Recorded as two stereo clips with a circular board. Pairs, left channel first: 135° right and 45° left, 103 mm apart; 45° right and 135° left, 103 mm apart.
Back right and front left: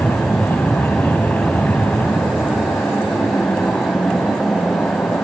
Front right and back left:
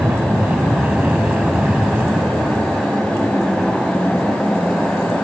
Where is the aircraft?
Straight behind; by 5.2 s 140° right.